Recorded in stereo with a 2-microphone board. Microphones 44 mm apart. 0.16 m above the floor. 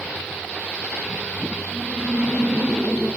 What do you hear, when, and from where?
1.7 s laughter: 5° left (ahead or behind), 7 m